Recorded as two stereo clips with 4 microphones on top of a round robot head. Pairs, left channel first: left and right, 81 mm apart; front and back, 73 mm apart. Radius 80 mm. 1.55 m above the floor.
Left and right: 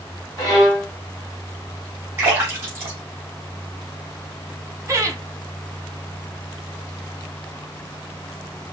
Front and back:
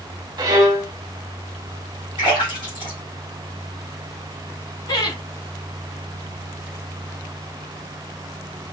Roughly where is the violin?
Behind left.